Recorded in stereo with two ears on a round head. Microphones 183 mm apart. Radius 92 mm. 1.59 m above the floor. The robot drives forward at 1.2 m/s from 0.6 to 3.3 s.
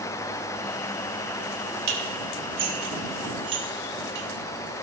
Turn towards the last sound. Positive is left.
turn(degrees=-55)  # may be behind; listen again after turning